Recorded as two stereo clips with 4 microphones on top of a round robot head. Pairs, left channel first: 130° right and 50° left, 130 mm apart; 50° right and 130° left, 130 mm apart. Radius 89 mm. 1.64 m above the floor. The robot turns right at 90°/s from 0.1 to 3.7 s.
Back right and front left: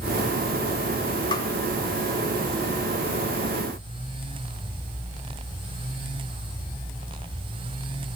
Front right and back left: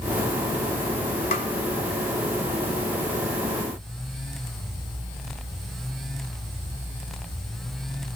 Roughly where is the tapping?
Right.